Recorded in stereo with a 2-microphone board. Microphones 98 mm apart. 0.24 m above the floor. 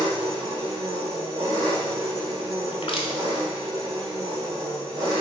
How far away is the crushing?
About 0.6 m.